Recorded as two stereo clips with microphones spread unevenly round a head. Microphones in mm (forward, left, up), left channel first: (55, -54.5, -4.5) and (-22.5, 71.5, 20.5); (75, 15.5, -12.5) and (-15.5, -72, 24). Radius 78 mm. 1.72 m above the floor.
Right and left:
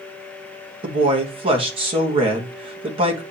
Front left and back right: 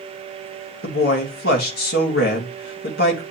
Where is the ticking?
I don't hear ticking.